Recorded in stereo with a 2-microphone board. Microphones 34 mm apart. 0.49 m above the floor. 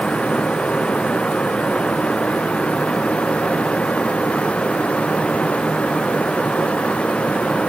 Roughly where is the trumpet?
No trumpet in this recording.